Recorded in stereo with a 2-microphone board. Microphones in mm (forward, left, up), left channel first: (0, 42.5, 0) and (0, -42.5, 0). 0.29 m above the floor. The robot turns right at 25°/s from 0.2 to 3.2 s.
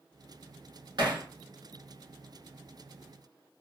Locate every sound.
1.0 s hammering: 65° right (ahead or behind), 0.9 m; by 1.2 s 70° right (ahead or behind), 0.9 m